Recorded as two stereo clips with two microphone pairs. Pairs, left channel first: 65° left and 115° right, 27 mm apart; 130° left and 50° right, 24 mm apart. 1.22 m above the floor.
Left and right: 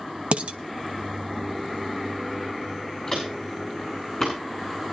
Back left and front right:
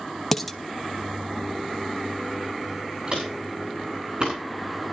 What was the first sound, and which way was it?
Dishes clattering, 145° right.